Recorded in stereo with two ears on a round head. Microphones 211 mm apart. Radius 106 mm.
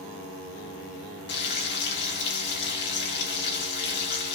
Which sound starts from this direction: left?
Frying, at 1.3 s.